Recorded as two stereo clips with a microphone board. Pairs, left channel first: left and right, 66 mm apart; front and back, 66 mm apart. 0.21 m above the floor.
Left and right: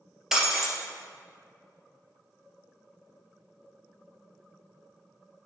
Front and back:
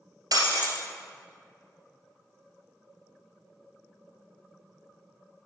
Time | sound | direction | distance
0.3 | breaking glass | 175° right | 1.9 m